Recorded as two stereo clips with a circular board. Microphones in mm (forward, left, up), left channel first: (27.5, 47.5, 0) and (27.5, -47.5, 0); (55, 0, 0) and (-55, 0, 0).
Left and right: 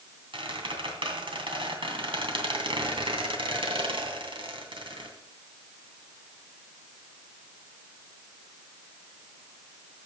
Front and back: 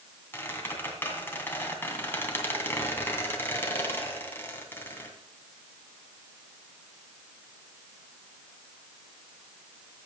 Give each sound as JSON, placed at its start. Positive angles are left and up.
{"t": 0.3, "sound": "a squeak", "azimuth_deg": -70, "distance_m": 2.5}